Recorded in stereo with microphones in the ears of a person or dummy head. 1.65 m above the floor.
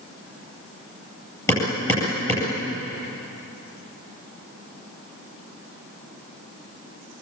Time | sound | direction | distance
1.5 | hammering | 15° left (ahead or behind) | 9.5 m